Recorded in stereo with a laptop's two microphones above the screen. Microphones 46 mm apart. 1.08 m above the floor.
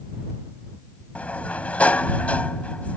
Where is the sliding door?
35° left (ahead or behind).